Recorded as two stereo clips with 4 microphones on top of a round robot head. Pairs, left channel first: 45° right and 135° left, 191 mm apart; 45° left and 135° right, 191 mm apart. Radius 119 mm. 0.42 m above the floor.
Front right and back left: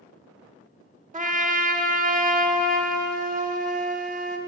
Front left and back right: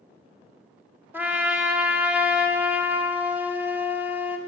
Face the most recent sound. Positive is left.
turn(degrees=150)